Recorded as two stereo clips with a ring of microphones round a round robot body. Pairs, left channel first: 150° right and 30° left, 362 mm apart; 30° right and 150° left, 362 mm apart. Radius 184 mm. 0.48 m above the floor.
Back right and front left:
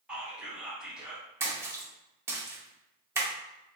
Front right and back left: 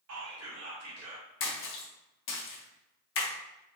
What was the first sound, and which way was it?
Whispering, 115° left.